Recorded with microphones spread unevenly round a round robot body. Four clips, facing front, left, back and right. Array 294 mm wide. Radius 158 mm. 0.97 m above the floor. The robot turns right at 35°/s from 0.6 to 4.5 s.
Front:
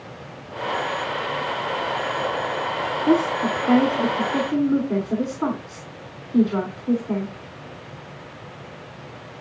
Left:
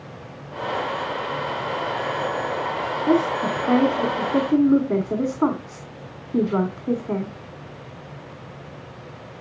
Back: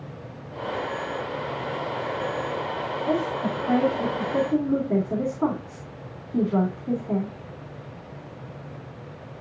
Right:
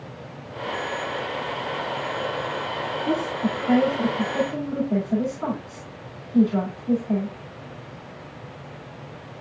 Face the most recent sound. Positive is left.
turn(degrees=70)